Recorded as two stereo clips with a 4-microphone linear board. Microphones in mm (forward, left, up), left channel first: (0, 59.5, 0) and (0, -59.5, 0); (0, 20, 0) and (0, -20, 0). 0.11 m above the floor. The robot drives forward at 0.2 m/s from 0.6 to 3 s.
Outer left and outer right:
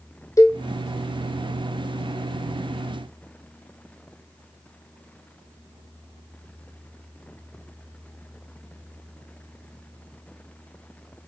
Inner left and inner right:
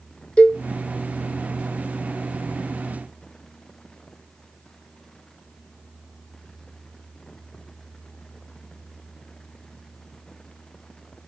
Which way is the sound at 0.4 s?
25° left (ahead or behind).